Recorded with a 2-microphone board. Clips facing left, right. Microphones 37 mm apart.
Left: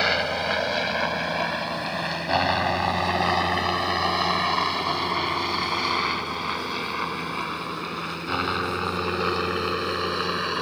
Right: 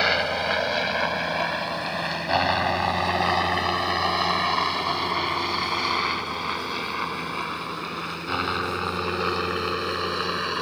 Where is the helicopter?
5° right (ahead or behind); by 10.6 s centre (ahead or behind).